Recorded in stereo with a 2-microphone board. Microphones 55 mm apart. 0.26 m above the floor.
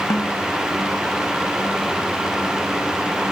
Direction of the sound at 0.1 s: 90° left.